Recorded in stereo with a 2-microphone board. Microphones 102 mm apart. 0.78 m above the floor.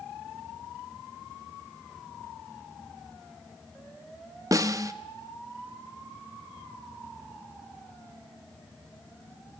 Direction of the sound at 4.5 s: 35° right (ahead or behind).